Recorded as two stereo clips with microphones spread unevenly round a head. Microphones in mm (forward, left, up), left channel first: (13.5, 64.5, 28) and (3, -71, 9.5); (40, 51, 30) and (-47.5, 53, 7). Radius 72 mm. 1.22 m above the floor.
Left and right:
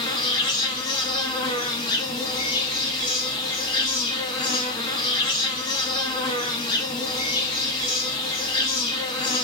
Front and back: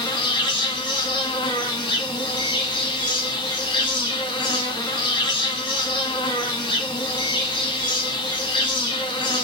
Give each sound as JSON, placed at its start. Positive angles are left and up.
{"t": 0.0, "sound": "an insect", "azimuth_deg": 35, "distance_m": 1.4}